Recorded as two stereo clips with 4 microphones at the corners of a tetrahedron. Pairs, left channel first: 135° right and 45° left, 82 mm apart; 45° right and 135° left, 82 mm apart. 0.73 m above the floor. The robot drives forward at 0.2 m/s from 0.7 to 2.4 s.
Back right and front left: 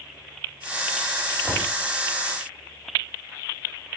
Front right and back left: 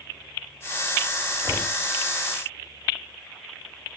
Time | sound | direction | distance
1.4 | knocking | 155° right | 2.5 m